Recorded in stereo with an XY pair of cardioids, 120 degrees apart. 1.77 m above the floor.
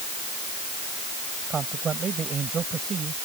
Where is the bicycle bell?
No bicycle bell in this recording.